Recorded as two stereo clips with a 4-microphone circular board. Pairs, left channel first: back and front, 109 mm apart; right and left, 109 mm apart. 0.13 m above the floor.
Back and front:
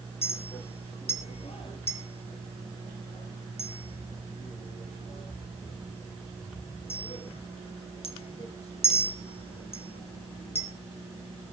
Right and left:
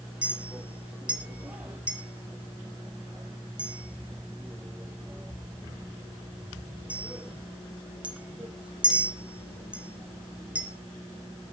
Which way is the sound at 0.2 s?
170° left.